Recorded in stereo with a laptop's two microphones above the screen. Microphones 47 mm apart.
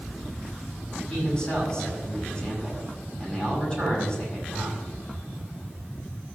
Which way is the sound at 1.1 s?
25° left (ahead or behind).